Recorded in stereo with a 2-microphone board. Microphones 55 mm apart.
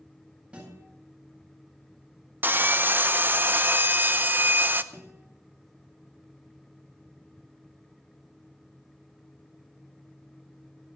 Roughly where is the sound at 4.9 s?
Right.